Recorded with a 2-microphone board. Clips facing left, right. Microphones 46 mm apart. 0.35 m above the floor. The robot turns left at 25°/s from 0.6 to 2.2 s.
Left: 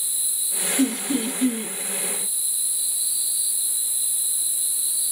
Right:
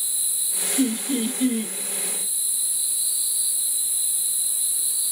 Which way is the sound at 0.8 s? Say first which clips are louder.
Even; 30° right (ahead or behind).